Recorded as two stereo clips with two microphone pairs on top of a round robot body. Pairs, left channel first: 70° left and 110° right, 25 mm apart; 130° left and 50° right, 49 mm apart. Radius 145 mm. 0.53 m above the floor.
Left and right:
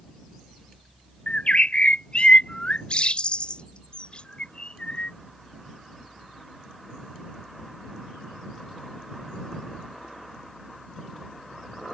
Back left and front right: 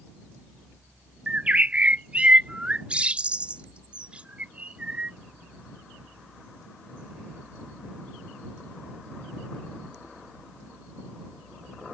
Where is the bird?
15° left.